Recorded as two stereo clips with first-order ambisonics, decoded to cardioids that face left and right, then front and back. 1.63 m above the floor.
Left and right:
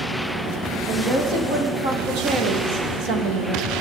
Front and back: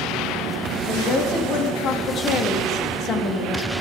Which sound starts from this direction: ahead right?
A woman speaking, at 0.9 s.